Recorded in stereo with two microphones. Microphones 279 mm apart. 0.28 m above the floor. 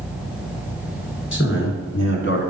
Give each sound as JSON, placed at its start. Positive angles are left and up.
{"t": 1.3, "sound": "a man speaking", "side_deg": 45, "distance_m": 3.5}